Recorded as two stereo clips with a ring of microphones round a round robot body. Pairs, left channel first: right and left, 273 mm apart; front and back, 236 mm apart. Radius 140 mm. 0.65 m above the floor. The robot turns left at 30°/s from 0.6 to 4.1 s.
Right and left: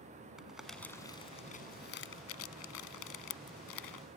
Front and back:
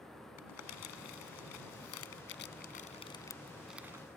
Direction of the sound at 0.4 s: Straight ahead.